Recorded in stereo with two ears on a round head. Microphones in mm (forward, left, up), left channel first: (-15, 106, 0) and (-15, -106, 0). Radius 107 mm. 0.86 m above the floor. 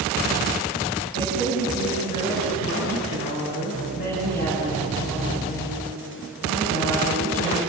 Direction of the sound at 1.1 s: 40° left (ahead or behind).